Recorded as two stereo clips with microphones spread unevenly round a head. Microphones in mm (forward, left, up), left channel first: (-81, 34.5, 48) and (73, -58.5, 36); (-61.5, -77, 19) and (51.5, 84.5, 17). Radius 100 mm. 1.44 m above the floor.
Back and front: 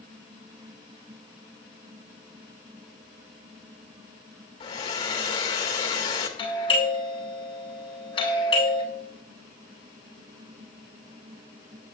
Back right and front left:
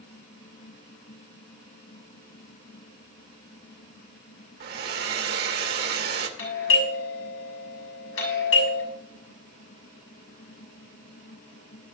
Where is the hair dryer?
90° left, 1.9 m.